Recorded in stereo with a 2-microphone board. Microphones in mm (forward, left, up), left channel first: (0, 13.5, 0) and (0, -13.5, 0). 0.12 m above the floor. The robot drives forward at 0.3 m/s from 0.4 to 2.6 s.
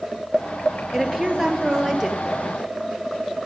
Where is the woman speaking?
15° right (ahead or behind), 1.9 m; by 2.3 s 10° right (ahead or behind), 2 m.